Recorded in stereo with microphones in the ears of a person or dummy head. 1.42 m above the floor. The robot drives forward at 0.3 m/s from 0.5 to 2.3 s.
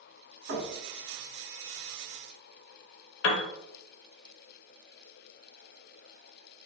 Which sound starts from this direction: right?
Knocking, at 0.5 s.